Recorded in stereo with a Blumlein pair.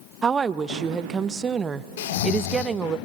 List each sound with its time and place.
0.2 s a woman speaking: 20° right, 0.7 m
2.0 s snoring: 55° left, 0.8 m